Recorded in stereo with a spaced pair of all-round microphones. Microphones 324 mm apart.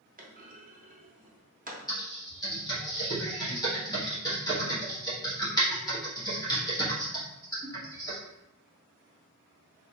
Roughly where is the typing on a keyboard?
Centre.